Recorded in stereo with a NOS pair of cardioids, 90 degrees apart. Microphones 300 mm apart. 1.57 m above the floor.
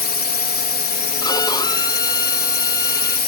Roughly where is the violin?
Ahead.